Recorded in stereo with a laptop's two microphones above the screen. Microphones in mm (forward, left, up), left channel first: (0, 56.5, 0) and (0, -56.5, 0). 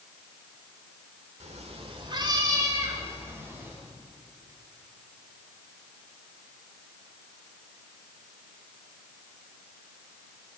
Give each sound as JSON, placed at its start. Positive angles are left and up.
{"t": 1.4, "sound": "a cat meowing", "side_deg": -75, "distance_m": 1.4}